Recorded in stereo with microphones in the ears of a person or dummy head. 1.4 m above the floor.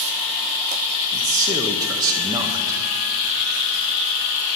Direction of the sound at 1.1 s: 15° right (ahead or behind).